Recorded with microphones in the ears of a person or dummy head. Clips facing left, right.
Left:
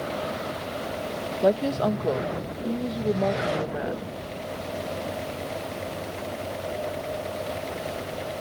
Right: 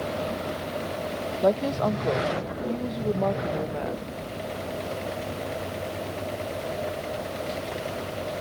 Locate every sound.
1.4 s a woman speaking: 10° left (ahead or behind)